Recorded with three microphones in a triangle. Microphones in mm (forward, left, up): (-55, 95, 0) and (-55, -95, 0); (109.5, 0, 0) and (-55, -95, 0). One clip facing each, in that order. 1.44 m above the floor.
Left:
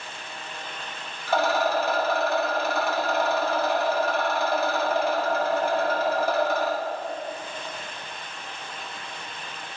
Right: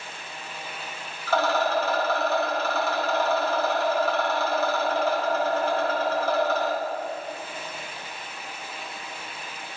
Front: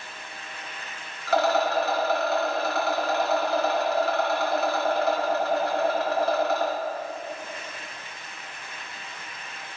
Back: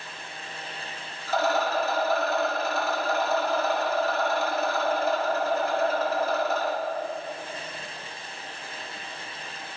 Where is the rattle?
15° left, 2.5 m.